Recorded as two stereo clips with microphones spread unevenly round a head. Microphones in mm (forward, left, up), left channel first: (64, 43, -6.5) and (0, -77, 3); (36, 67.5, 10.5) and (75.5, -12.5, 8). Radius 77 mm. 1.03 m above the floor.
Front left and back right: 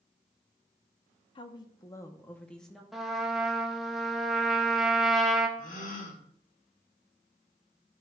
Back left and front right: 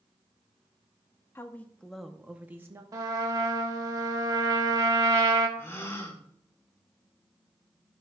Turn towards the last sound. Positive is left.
turn(degrees=60)